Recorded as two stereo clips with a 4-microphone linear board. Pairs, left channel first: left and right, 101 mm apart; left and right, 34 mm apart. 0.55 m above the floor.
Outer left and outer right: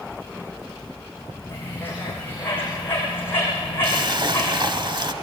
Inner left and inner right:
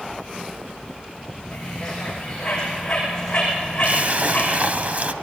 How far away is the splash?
About 0.7 m.